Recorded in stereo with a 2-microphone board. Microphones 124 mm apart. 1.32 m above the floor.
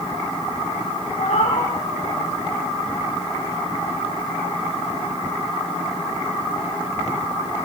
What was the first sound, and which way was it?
A cat meowing, 65° left (ahead or behind).